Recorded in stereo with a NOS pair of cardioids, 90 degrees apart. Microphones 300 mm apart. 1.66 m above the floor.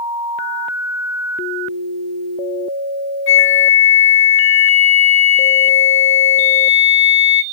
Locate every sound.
3.3 s a flute: 40° left, 0.9 m